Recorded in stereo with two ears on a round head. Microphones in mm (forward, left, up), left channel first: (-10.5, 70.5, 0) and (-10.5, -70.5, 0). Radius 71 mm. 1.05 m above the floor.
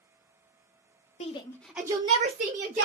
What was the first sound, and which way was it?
A shout, 40° left (ahead or behind).